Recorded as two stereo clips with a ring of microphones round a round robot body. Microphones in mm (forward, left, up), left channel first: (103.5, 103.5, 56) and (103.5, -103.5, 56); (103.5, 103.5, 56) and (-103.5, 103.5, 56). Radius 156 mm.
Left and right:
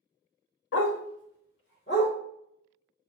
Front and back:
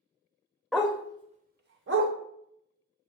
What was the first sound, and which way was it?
A dog barking, 90° left.